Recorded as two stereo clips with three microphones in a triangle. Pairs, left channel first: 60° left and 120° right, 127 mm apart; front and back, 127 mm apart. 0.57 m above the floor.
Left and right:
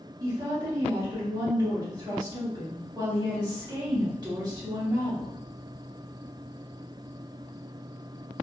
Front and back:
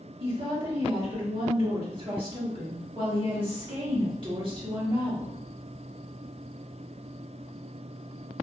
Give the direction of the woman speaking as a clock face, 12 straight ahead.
5 o'clock.